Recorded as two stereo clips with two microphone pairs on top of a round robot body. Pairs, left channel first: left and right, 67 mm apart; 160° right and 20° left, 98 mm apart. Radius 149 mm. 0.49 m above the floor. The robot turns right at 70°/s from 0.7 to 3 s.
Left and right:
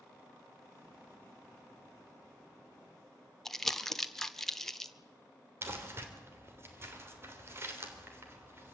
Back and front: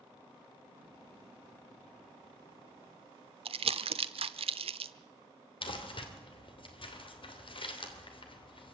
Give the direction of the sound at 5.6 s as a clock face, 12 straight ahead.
5 o'clock.